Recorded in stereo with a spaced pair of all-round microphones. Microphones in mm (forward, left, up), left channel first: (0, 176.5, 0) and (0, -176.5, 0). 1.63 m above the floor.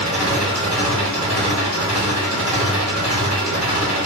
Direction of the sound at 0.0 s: 5° right (ahead or behind).